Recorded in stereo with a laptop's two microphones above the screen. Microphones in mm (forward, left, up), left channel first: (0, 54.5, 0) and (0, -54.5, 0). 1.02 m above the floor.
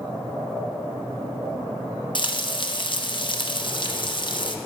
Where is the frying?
45° left (ahead or behind), 0.8 m.